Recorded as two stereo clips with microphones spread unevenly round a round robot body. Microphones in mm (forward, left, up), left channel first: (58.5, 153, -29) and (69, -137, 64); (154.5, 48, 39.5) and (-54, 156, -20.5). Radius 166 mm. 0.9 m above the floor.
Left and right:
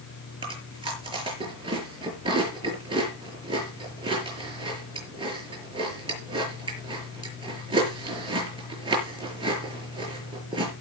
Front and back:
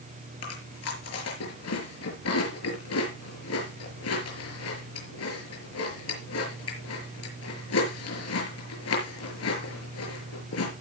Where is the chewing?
15° right, 6 m.